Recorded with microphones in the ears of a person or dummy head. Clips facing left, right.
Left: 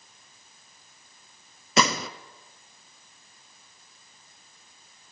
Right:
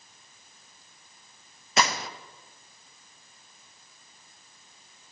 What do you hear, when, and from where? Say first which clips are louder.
1.8 s a gunshot: left 3 dB; 65° left (ahead or behind), 0.6 m